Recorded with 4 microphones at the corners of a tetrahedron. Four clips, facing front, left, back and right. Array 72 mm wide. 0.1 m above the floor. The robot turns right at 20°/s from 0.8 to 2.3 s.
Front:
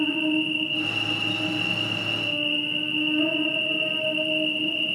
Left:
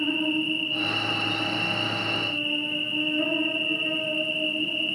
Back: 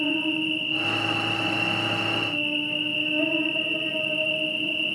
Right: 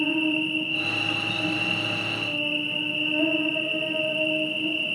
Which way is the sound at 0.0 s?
30° left.